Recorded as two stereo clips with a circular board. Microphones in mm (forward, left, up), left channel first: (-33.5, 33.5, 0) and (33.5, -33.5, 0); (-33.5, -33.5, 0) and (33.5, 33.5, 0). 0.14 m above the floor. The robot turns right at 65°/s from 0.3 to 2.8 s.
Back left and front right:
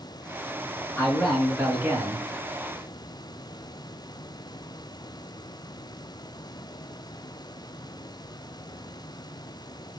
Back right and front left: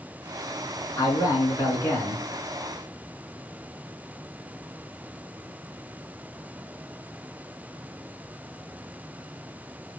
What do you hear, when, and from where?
1.0 s a man speaking: 160° right, 2 m; by 2.2 s 80° right, 2 m